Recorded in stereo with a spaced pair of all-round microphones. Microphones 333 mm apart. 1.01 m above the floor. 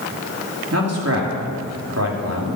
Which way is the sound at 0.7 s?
50° right (ahead or behind).